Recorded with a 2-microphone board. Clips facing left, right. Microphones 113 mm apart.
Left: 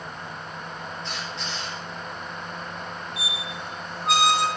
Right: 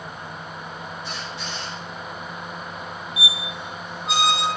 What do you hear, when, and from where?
1.0 s a squeak: 10° right (ahead or behind), 3.5 m
3.2 s a squeak: 60° left (ahead or behind), 1.4 m